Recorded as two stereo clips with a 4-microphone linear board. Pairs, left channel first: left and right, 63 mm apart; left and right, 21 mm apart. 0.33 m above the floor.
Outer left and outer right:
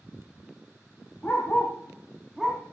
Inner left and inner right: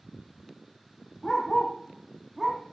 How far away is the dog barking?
About 3 m.